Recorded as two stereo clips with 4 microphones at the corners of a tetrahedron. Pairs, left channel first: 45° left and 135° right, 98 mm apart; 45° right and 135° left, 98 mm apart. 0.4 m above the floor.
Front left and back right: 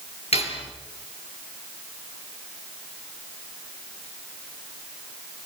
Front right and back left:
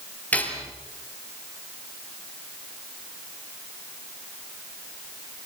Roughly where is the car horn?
I don't hear a car horn.